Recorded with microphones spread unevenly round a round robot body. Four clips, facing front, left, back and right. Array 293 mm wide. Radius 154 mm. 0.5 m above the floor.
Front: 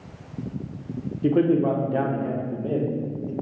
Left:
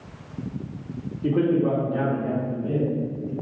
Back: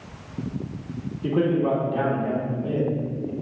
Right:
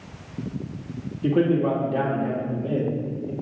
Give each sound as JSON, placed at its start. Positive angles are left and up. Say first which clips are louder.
{"t": 1.2, "sound": "a man speaking", "louder": "right 1 dB, front 2 dB", "azimuth_deg": -15, "distance_m": 1.4}